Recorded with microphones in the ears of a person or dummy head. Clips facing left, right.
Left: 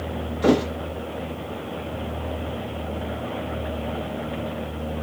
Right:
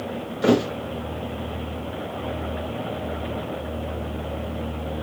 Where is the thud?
15° right (ahead or behind), 2.5 m.